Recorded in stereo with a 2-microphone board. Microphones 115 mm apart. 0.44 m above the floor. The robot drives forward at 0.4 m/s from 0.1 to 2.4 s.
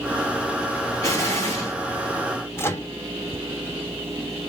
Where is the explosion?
30° left (ahead or behind), 1.4 m; by 1.8 s 25° left (ahead or behind), 1.4 m.